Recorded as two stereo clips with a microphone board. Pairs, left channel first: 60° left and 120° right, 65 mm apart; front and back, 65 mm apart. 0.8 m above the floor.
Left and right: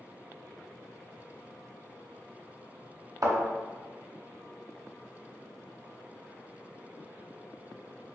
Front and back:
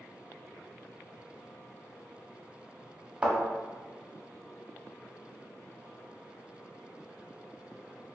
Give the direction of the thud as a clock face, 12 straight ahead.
4 o'clock.